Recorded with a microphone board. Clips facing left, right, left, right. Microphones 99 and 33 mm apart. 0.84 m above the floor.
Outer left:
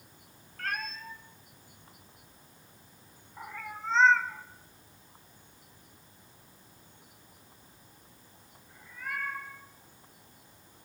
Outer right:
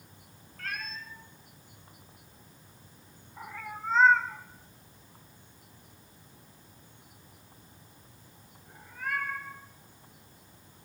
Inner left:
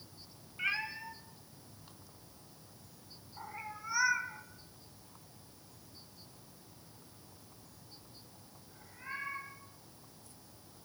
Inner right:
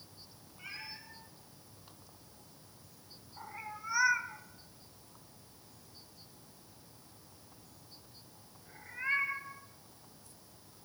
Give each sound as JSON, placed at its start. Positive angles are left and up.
{"t": 0.6, "sound": "a cat meowing", "side_deg": 50, "distance_m": 2.0}